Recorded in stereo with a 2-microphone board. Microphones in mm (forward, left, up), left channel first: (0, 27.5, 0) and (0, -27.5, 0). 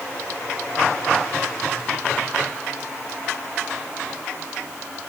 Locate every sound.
Only background noise.